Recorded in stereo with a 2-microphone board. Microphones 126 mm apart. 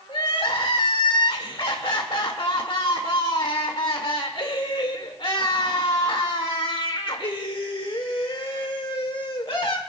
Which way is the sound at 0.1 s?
45° left (ahead or behind).